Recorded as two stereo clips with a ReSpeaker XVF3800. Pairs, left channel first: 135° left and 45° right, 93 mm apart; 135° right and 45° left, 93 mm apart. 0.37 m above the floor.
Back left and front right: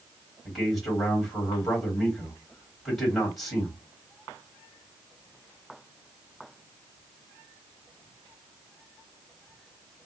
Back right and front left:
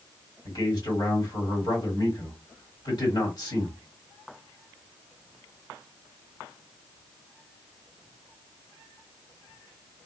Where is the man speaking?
135° right, 1.9 m.